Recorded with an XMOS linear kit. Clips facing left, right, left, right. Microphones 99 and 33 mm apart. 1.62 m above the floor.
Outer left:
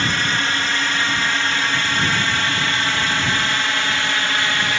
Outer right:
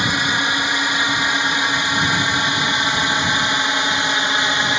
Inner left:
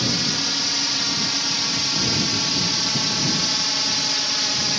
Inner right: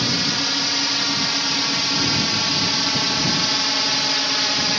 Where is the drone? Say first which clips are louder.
Outer right 1 dB, inner right 2 dB; 15° right (ahead or behind); by 4.8 s 20° right (ahead or behind).